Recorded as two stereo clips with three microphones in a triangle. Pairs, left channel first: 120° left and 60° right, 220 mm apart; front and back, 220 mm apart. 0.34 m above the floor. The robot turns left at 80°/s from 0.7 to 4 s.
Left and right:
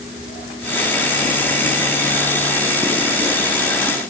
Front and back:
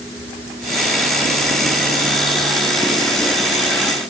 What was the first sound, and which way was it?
Only background noise.